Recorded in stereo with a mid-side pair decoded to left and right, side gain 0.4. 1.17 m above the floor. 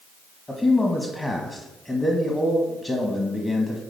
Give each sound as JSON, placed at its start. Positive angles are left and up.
{"t": 0.5, "sound": "a man speaking", "azimuth_deg": 20, "distance_m": 1.4}